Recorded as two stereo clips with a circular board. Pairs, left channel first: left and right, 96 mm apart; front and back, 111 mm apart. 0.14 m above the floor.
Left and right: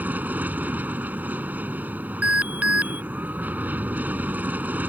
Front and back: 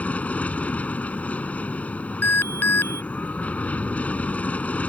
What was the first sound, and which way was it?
An aircraft, 55° right.